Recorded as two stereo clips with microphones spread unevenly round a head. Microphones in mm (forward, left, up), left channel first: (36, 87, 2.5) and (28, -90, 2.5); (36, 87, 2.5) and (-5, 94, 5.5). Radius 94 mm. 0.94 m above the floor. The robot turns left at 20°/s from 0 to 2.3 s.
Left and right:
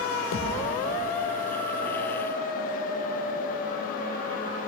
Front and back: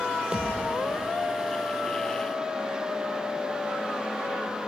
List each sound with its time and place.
0.3 s a thud: 100° left, 7 m; by 0.7 s 90° left, 7 m